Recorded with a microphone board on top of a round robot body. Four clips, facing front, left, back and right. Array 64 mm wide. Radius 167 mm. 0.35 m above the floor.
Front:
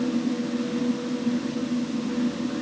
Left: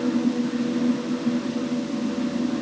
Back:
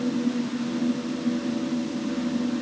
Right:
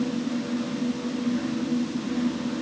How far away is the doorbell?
I don't hear a doorbell.